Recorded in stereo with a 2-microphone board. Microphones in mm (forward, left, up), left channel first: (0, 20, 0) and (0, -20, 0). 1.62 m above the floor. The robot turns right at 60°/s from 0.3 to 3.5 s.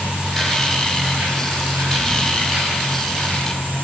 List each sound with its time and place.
0.0 s an insect: 155° right, 9.5 m; by 3.8 s 40° left, 9.5 m